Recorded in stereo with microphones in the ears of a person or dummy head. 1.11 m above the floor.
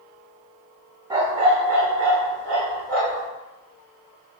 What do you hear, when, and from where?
1.1 s a dog barking: 20° right (ahead or behind), 0.6 m; by 3.3 s 75° right (ahead or behind), 1.7 m